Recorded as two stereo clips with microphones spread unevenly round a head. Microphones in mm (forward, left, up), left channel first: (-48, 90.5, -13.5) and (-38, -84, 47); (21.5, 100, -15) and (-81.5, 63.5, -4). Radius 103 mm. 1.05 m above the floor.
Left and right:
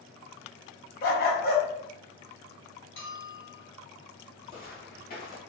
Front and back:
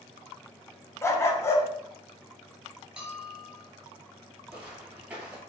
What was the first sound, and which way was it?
A dog barking, 70° left.